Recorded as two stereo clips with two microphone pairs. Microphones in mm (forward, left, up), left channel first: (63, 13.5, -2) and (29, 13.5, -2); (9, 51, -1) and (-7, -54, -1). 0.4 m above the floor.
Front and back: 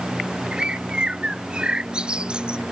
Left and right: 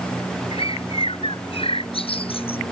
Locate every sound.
0.5 s a bird: 110° left